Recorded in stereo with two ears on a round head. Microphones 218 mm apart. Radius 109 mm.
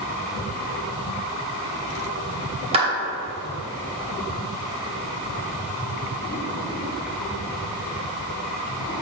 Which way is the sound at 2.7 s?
25° right (ahead or behind).